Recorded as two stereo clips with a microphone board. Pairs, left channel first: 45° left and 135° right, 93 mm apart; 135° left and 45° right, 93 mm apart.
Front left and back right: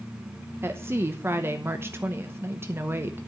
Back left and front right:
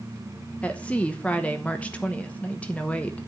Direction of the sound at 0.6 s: 165° right.